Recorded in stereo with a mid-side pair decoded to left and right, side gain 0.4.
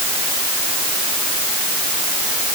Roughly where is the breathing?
I don't hear breathing.